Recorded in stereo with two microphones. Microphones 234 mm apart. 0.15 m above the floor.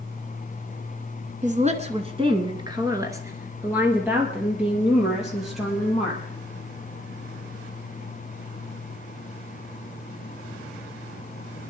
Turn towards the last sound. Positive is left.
turn(degrees=0)  # may be behind; listen again after turning